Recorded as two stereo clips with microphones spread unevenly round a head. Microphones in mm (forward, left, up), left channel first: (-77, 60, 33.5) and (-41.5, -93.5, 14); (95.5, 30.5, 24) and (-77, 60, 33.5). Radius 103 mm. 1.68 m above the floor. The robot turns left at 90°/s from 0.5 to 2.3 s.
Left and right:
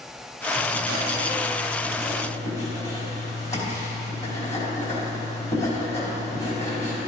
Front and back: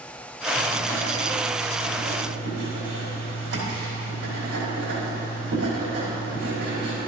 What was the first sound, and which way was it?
Writing, 55° right.